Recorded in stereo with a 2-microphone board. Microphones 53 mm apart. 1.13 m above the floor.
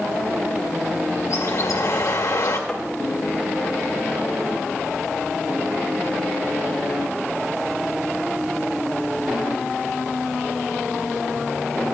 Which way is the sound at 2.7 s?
5° left (ahead or behind).